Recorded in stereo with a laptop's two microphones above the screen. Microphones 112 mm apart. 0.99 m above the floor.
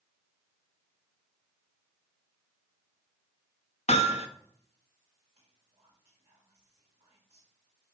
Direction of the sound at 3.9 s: 80° left.